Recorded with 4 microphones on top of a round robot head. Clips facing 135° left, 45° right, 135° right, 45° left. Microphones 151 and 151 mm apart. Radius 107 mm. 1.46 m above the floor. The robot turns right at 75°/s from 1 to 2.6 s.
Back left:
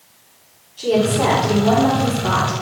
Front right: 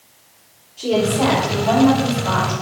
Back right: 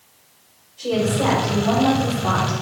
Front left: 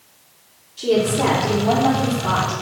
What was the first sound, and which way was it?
A woman speaking, 40° left.